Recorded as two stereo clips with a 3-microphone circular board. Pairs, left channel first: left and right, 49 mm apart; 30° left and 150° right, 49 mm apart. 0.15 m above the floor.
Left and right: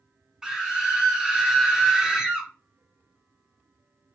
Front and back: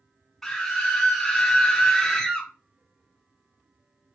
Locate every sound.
0.4 s a scream: 40° right, 1.1 m